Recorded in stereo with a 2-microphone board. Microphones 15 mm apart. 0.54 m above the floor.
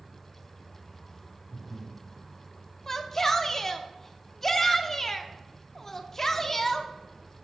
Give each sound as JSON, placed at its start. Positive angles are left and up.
{"t": 1.5, "sound": "breathing", "side_deg": -5, "distance_m": 1.2}
{"t": 2.9, "sound": "a shout", "side_deg": 20, "distance_m": 0.7}